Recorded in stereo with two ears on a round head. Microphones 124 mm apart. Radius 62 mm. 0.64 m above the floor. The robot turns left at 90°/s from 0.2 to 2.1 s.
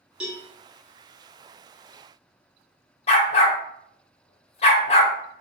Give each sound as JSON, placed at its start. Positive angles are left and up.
{"t": 0.2, "sound": "a cowbell", "side_deg": -5, "distance_m": 0.9}
{"t": 3.1, "sound": "a dog barking", "side_deg": 45, "distance_m": 0.6}